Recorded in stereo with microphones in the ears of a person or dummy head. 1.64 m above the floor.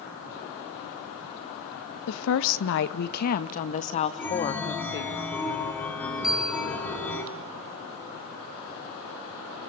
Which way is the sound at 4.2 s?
10° left (ahead or behind).